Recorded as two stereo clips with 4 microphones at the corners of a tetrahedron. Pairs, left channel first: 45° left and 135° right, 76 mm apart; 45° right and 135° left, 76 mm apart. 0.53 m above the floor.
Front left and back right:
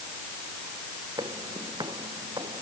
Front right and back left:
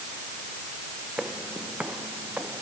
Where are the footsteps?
150° right; by 2.6 s 155° right.